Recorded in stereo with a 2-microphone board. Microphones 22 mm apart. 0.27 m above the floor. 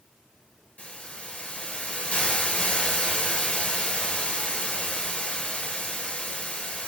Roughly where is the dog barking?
I don't hear a dog barking.